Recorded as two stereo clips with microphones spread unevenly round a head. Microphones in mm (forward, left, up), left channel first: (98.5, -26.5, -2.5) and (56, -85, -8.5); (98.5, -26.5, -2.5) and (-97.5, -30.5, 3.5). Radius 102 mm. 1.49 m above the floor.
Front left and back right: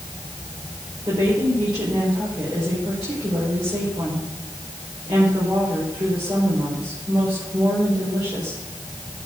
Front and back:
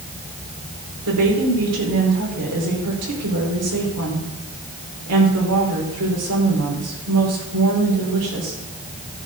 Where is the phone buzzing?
No phone buzzing in this recording.